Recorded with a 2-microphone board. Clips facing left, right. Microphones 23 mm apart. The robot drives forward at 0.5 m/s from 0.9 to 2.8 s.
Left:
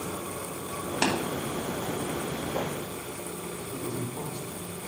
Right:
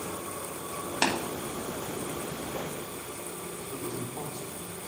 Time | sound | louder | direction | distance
1.0 | tapping | even | 20° right (ahead or behind) | 2.5 m
3.7 | a man speaking | left 2 dB | 85° right | 3.5 m